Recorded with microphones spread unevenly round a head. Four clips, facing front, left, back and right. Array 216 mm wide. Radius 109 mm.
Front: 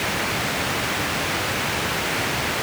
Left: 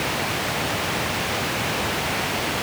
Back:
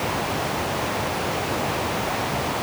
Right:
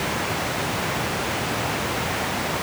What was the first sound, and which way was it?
Only background noise.